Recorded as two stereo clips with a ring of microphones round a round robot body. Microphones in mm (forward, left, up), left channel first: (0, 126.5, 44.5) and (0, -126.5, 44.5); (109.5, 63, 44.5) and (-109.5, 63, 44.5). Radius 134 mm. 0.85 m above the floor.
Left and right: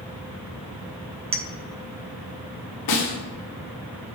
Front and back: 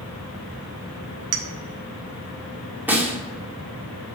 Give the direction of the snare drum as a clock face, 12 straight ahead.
9 o'clock.